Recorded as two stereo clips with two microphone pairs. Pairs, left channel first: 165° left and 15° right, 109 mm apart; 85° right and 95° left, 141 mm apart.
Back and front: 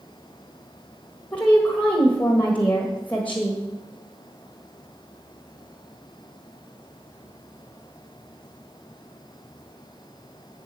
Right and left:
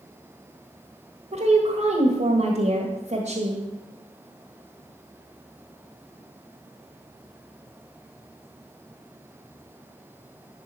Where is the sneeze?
No sneeze in this recording.